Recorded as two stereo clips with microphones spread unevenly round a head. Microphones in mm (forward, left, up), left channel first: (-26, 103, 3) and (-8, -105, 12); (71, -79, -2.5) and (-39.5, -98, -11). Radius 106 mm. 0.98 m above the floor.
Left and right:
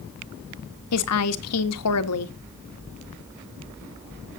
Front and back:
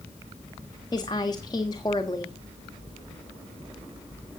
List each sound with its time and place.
0.9 s a woman speaking: 85° left, 1.2 m